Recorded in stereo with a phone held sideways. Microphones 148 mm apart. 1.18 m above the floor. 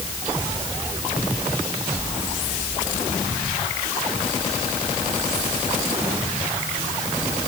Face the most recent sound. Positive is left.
No sound to turn to.